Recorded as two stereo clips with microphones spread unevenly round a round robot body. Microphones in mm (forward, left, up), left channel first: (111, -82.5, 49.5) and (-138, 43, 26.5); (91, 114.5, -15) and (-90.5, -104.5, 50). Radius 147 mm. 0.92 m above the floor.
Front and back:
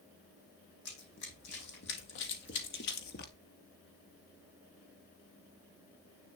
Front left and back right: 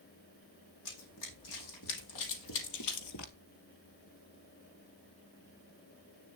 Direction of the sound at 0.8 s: 25° left.